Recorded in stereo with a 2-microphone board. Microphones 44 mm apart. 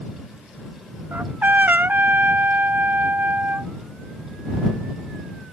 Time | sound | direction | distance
1.1 | a trumpet | 45° right (ahead or behind) | ?